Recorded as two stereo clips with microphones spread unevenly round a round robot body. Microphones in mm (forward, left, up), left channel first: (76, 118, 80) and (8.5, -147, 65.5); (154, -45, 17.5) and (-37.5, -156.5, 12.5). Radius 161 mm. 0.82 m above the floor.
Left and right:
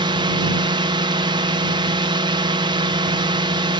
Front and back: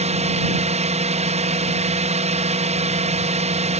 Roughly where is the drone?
Behind right.